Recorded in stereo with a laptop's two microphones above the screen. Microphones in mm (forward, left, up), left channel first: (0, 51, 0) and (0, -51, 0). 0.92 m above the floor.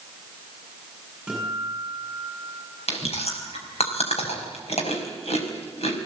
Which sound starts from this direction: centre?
A guitar, at 1.3 s.